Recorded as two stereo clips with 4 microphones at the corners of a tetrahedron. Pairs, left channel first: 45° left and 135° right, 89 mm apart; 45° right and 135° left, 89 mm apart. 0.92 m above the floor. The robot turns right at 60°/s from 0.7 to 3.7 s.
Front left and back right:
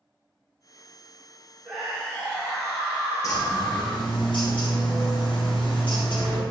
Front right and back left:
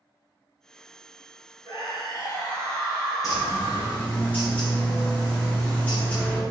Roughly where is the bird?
Ahead.